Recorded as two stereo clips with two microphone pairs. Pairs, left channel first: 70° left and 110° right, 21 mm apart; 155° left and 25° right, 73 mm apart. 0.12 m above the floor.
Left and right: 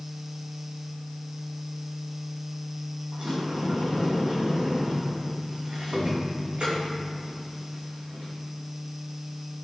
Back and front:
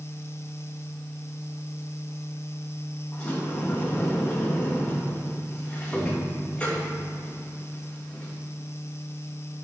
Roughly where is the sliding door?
Behind right.